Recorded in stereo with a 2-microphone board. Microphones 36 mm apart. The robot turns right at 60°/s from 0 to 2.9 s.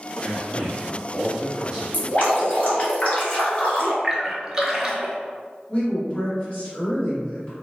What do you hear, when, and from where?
0.2 s a man speaking: 20° right (ahead or behind), 1.1 m; by 1.8 s 5° right (ahead or behind), 1.1 m
1.9 s dripping: 65° left, 0.9 m; by 3.9 s 120° left, 0.9 m
4.0 s a splash: 10° right (ahead or behind), 0.5 m
5.7 s a woman speaking: 30° left (ahead or behind), 1.9 m